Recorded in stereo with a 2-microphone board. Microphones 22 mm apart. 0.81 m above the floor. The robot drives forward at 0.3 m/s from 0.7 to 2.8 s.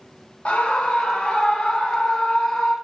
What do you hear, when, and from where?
0.5 s a scream: 65° left (ahead or behind), 1.0 m; by 2.8 s 50° left (ahead or behind), 1.2 m